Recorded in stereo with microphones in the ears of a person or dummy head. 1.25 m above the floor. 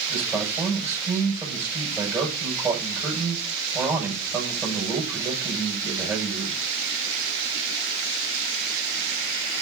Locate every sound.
0.1 s a man speaking: 10° right (ahead or behind), 6.5 m